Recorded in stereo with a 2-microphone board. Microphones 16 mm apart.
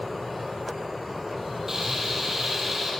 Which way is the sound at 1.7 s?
20° right (ahead or behind).